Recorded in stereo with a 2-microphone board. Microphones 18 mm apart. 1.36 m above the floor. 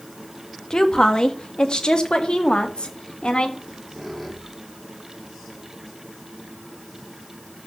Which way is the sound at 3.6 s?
5° right (ahead or behind).